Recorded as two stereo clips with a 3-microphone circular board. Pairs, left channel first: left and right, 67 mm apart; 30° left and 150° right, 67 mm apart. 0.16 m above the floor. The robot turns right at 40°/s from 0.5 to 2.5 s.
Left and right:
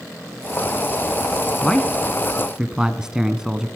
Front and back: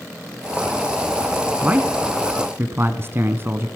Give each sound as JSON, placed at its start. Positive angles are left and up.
{"t": 1.6, "sound": "a man speaking", "azimuth_deg": 160, "distance_m": 1.2}